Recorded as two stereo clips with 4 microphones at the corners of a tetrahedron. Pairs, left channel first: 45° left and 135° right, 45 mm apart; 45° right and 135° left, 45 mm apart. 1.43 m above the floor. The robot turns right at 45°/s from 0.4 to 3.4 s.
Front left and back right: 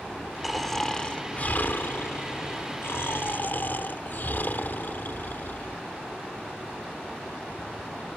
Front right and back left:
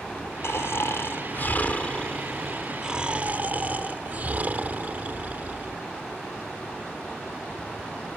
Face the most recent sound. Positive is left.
turn(degrees=85)